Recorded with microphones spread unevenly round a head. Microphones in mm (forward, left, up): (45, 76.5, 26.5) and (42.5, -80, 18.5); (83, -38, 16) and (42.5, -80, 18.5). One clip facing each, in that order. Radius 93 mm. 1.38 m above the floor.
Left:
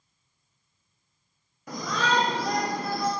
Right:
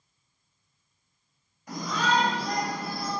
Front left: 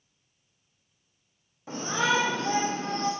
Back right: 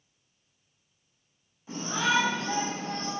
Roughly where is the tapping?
No tapping in this recording.